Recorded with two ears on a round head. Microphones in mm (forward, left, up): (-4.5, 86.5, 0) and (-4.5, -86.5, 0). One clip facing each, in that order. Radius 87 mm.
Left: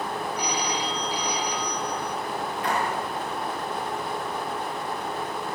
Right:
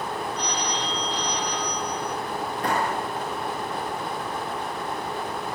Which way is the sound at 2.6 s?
35° right (ahead or behind).